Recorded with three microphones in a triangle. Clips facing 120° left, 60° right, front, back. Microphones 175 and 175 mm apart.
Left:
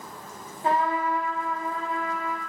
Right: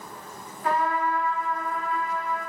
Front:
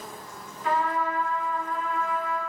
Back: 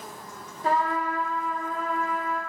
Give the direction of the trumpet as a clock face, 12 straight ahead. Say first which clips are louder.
Left 1 dB, back 1 dB; 7 o'clock.